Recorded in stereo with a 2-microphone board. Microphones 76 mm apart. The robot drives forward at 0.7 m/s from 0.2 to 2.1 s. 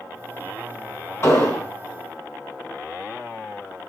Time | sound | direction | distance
1.2 | an explosion | 35° left (ahead or behind) | 3.5 m